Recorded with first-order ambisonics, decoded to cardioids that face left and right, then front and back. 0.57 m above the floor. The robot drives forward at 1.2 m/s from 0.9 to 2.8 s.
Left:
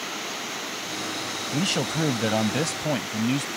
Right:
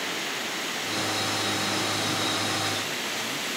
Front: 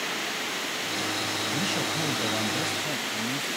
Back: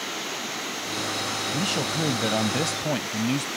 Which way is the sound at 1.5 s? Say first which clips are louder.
Left 1 dB, back 1 dB; 100° left.